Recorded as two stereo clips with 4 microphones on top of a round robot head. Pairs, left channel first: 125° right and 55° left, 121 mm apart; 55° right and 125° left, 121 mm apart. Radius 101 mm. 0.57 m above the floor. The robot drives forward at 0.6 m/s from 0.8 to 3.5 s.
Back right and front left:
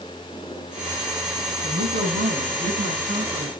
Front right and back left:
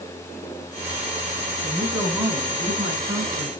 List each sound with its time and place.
1.6 s a woman speaking: 55° left, 9 m; by 3.5 s 60° left, 8.5 m